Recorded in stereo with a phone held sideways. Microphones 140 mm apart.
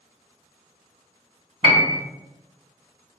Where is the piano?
40° right (ahead or behind), 0.6 m.